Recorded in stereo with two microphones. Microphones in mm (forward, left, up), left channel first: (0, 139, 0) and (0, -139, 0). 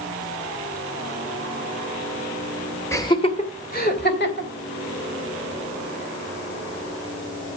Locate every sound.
2.9 s laughter: 10° left (ahead or behind), 1.8 m; by 4.5 s 45° left (ahead or behind), 3.5 m